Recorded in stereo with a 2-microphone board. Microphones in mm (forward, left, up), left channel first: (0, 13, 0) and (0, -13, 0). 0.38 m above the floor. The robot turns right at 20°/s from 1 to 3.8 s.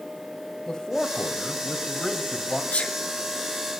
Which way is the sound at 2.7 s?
65° left (ahead or behind).